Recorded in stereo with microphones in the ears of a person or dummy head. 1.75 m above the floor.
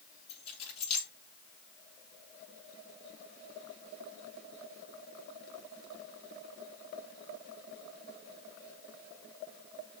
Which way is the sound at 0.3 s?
35° left (ahead or behind).